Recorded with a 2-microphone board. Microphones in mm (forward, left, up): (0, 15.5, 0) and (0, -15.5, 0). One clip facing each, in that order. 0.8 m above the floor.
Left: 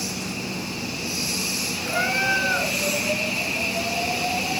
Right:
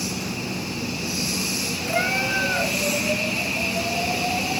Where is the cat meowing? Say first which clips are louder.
Left 1 dB; 50° left (ahead or behind), 4 m.